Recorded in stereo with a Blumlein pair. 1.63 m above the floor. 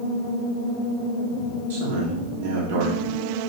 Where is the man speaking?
55° right, 3 m.